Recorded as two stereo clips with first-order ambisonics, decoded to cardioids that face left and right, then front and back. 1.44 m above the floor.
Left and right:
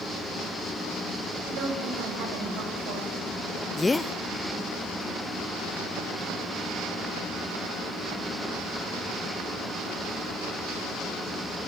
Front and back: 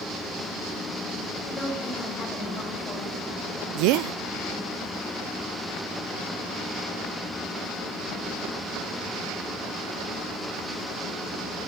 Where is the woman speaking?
70° right, 9.5 m.